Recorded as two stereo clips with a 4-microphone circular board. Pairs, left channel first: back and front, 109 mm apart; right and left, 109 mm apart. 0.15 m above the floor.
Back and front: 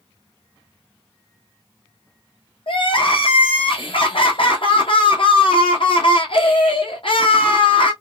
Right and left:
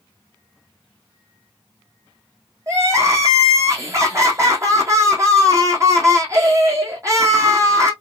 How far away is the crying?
About 1.3 m.